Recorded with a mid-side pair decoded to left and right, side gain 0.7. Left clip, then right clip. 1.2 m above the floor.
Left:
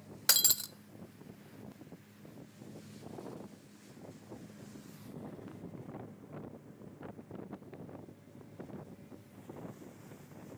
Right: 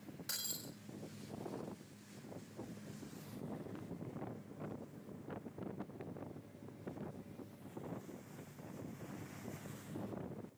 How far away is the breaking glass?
About 1.3 m.